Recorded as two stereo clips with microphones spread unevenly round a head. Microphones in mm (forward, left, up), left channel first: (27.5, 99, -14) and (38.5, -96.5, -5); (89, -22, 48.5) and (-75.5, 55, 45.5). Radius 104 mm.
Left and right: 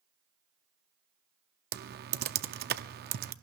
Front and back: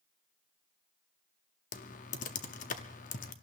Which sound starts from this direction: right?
Typing on a keyboard, at 1.7 s.